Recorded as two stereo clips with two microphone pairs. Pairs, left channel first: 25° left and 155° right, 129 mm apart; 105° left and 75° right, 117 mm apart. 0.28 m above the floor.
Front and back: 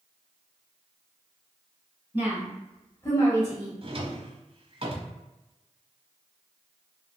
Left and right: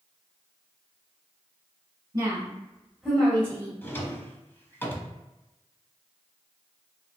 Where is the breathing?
No breathing in this recording.